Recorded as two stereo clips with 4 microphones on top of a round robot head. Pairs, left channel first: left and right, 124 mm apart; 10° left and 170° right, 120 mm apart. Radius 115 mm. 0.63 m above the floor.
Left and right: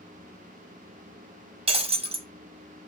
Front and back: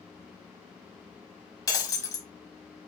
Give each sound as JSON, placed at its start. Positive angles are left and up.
{"t": 1.7, "sound": "breaking glass", "azimuth_deg": -55, "distance_m": 0.8}